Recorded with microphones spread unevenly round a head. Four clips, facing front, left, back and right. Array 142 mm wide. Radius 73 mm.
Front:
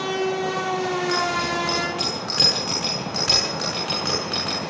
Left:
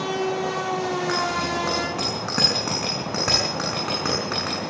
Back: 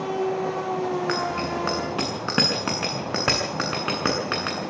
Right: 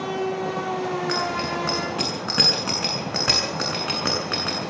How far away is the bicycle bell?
About 8.5 m.